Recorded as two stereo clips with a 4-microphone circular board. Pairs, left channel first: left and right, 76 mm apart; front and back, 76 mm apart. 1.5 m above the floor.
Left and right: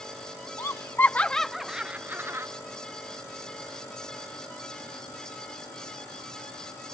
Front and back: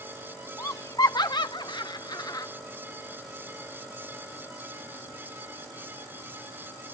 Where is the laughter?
45° left; by 2.5 s 35° right.